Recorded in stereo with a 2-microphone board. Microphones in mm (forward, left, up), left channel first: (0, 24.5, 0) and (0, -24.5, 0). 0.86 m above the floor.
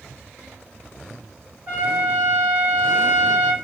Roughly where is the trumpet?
Right.